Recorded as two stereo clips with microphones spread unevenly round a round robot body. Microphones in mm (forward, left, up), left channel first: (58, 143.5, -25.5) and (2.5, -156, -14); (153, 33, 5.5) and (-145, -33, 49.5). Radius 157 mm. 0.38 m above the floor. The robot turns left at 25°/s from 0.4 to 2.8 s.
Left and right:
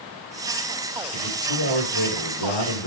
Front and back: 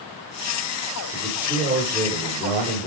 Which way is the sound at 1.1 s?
115° left.